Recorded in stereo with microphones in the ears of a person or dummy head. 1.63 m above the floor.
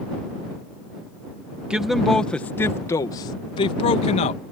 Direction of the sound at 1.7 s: 5° right (ahead or behind).